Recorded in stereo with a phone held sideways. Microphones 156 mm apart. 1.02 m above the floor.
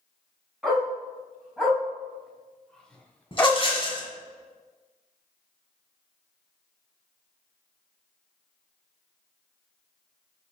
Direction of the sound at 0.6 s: 5° right (ahead or behind).